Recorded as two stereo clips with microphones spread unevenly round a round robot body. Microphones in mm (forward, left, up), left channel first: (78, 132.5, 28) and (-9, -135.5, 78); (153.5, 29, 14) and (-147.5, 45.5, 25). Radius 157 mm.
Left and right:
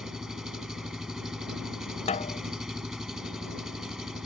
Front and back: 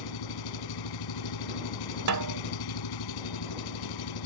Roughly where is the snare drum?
Behind left.